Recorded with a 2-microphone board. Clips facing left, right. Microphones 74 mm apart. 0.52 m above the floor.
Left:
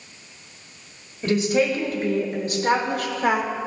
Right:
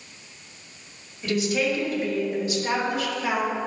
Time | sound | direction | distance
1.2 | a woman speaking | 40° left (ahead or behind) | 2.0 m